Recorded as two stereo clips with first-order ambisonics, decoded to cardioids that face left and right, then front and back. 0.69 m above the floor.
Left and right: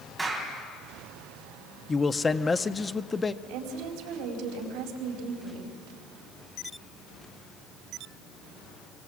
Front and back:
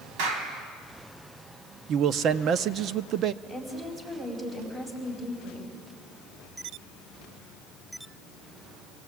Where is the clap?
170° right, 3.5 m.